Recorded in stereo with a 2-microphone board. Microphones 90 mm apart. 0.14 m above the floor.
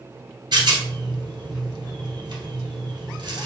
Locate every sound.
0.5 s a rattle: 55° right (ahead or behind), 1.8 m